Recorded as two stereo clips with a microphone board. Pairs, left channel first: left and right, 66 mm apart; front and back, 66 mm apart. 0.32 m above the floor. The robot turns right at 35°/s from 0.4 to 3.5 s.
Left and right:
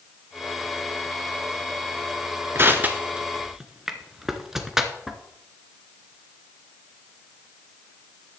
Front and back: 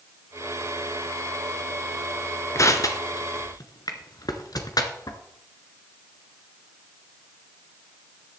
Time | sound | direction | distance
2.5 | crushing | 40° right | 1.7 m